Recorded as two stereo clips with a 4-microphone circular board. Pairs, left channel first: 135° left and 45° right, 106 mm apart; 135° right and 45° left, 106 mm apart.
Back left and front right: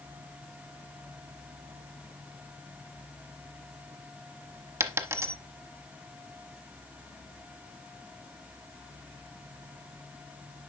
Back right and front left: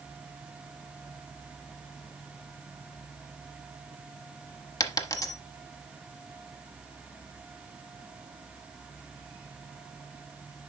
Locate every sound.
4.8 s a dropped coin: 95° right, 1.0 m